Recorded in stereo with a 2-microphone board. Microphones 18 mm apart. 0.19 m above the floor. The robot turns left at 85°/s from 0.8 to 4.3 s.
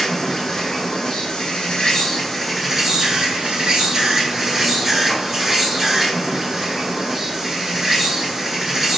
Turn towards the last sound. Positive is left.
turn(degrees=-150)